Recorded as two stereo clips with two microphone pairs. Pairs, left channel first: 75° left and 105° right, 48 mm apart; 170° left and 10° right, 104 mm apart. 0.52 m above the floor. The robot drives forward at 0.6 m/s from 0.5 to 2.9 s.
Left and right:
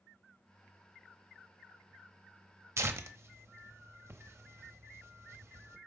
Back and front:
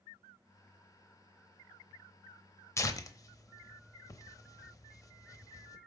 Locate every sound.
2.8 s tearing paper: 125° right, 0.7 m; by 5.8 s 130° right, 0.8 m